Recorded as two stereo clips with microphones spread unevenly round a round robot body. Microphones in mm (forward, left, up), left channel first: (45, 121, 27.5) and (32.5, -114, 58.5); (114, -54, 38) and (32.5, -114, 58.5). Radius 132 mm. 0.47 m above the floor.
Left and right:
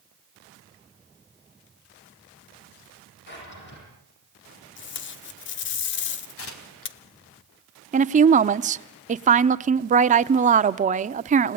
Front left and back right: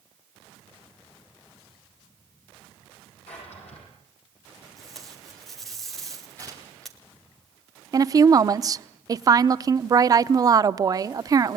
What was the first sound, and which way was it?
A drawer, 45° left.